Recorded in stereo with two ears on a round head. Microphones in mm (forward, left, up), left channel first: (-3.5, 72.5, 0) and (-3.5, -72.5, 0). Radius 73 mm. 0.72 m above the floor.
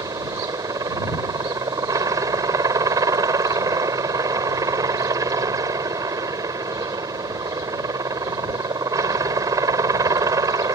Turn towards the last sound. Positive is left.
turn(degrees=-20)  # may be behind; listen again after turning